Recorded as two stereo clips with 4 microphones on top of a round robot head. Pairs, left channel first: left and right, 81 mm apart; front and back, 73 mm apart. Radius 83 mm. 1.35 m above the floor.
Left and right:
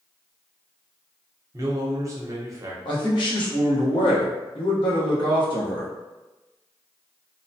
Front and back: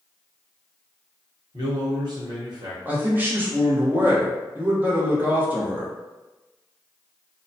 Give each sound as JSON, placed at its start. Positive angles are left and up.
{"t": 1.5, "sound": "a man speaking", "azimuth_deg": -140, "distance_m": 0.8}
{"t": 2.9, "sound": "a man speaking", "azimuth_deg": 115, "distance_m": 1.0}